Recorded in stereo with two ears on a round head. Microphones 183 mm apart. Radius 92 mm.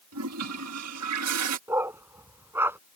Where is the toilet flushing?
85° right.